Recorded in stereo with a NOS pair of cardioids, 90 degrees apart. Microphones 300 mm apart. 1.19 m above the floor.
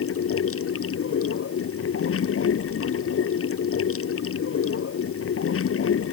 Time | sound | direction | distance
0.0 | running water | 50° left | ?